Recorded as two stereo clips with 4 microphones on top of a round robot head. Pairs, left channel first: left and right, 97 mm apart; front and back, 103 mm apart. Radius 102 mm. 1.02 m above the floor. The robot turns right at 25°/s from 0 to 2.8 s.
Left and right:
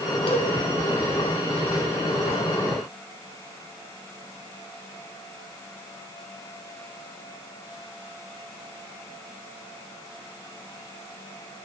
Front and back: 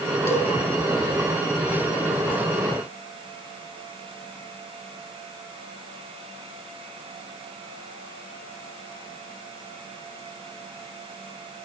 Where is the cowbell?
65° left, 4 m; by 0.5 s 70° left, 4 m.